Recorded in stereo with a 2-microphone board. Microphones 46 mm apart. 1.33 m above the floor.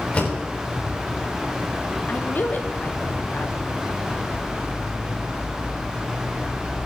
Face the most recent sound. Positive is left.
turn(degrees=45)  # may be behind; listen again after turning